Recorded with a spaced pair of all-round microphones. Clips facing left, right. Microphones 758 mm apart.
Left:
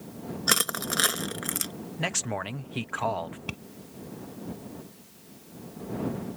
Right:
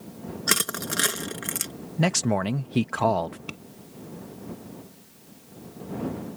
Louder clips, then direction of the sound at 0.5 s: Right 2 dB; 55° right (ahead or behind).